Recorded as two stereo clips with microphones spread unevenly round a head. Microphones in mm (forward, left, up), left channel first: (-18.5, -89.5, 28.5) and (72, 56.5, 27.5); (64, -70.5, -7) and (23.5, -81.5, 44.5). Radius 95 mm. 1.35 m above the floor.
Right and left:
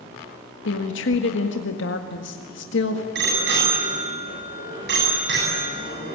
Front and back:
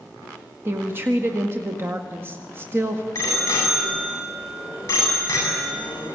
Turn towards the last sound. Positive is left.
turn(degrees=35)